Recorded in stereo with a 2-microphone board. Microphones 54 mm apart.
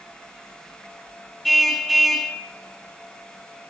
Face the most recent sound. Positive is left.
turn(degrees=0)  # may be behind; listen again after turning